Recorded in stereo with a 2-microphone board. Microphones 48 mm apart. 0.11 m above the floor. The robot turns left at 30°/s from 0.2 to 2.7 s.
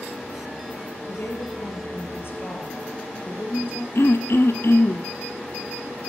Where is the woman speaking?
115° left, 2.5 m; by 3.9 s 65° left, 2.5 m.